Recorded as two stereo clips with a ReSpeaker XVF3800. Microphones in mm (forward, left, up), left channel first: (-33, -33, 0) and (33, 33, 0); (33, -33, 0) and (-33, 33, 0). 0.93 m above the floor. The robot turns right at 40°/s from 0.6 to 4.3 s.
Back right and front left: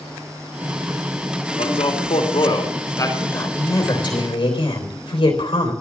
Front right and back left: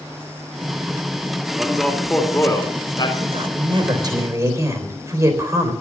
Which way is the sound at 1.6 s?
140° right.